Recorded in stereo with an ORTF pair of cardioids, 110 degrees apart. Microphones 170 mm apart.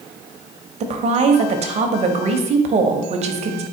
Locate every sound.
0.8 s a woman speaking: 40° right, 0.7 m